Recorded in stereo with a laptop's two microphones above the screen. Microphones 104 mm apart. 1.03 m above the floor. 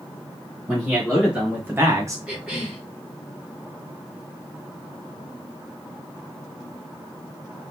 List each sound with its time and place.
0.7 s a man speaking: 5° right (ahead or behind), 2 m; by 2.2 s 30° right (ahead or behind), 0.6 m
2.3 s a cough: 10° right (ahead or behind), 2 m